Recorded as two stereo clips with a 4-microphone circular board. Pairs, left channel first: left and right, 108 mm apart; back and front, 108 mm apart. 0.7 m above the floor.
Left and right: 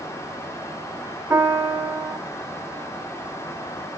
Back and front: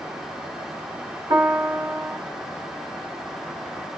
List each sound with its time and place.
1.3 s a piano: 35° right, 1.9 m